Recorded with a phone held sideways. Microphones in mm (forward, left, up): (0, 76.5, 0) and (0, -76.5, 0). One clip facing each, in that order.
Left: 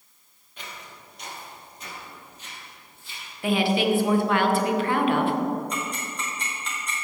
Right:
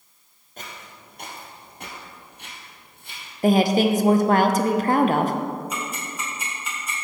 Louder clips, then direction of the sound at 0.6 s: Right 1 dB; 40° right (ahead or behind).